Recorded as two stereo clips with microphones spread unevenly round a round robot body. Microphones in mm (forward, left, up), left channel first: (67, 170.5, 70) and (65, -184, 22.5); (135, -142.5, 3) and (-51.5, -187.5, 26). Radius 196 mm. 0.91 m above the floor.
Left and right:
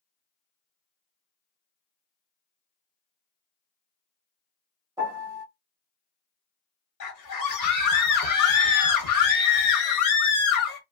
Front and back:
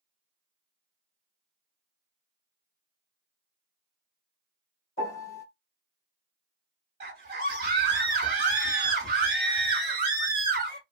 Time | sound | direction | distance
5.0 | a piano | 10° right | 1.7 m
7.0 | a scream | 125° left | 1.0 m